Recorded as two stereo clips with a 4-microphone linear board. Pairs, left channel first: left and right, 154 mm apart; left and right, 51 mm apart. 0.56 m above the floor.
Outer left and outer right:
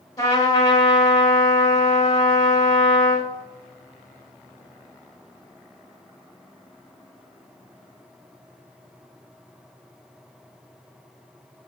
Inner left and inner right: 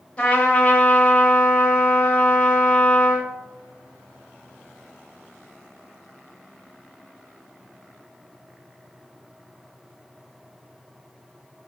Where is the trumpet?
20° left (ahead or behind), 0.7 m.